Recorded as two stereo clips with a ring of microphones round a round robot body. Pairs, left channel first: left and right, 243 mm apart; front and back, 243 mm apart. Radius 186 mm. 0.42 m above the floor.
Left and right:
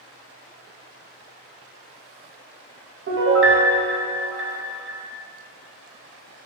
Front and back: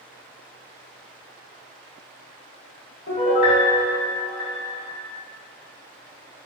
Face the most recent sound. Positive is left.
turn(degrees=-50)